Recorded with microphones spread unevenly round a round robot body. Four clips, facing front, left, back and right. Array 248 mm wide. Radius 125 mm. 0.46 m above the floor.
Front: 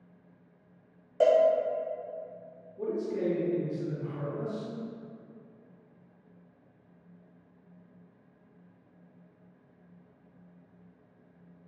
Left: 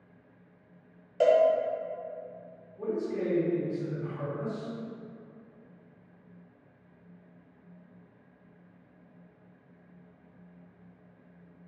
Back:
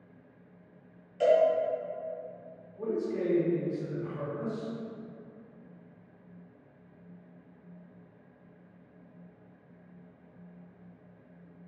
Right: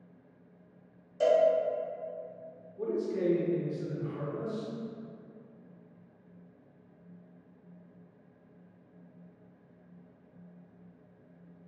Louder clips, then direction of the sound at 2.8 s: Even, even; 70° right.